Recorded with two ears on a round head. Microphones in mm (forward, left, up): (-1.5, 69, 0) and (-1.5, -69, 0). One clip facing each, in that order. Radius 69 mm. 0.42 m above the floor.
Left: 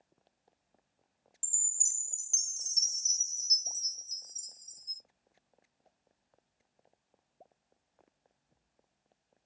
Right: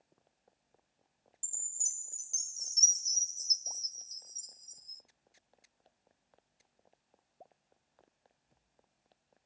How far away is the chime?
About 1.7 m.